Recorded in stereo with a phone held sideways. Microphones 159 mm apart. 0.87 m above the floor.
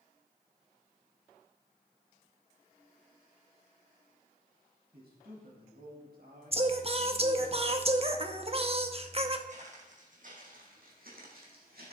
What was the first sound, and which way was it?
A man speaking, 85° right.